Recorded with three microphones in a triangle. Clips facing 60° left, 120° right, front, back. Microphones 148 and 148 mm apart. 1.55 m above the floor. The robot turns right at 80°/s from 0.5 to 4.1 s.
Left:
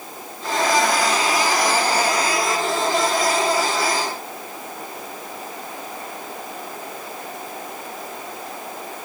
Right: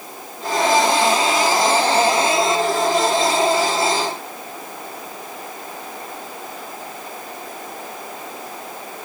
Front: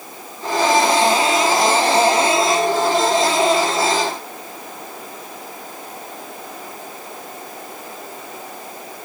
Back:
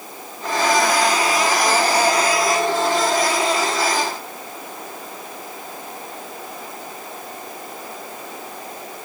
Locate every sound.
Only background noise.